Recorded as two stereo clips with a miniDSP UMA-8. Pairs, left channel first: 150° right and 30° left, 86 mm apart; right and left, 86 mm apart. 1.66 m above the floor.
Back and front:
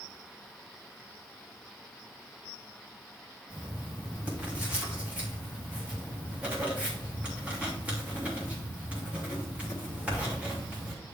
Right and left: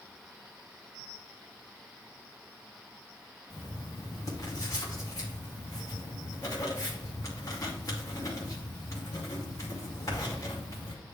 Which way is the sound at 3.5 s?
45° right.